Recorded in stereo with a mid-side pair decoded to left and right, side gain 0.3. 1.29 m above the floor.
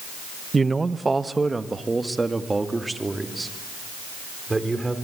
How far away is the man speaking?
About 0.8 m.